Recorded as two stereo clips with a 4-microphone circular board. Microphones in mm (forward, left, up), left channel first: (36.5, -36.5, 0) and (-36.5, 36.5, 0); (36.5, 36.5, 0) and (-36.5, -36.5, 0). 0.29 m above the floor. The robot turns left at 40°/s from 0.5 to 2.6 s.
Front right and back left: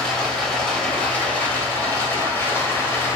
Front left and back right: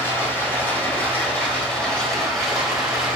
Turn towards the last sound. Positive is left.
turn(degrees=-50)